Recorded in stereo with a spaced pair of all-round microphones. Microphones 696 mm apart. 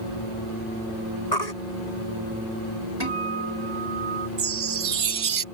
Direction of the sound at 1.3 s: 90° left.